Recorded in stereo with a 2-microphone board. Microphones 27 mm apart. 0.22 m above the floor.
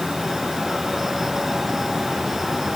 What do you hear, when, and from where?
Only background noise.